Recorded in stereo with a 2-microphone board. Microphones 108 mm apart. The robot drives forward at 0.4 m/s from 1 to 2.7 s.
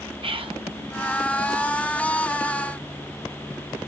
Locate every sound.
0.2 s whispering: 55° right (ahead or behind), 0.8 m